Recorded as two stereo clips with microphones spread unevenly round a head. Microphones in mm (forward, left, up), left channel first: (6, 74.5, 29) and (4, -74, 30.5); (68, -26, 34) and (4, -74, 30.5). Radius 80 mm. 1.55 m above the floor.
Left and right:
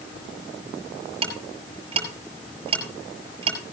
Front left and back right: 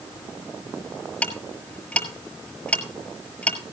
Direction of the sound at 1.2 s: 35° right.